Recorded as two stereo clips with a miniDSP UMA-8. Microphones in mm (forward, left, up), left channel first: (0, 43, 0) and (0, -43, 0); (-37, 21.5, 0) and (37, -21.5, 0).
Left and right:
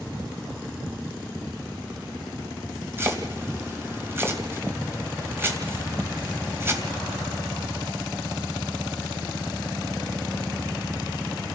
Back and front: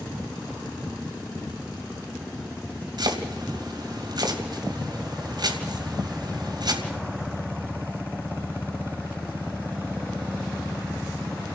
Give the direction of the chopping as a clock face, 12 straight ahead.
1 o'clock.